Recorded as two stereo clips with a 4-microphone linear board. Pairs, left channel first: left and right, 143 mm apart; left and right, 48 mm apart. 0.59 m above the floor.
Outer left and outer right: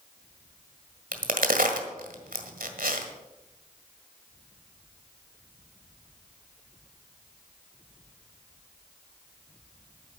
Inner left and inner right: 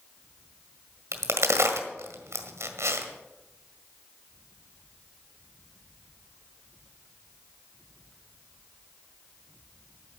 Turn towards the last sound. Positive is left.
turn(degrees=-75)  # may be behind; listen again after turning